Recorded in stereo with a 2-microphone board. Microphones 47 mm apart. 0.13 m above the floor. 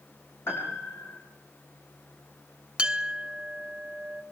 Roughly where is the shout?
No shout in this recording.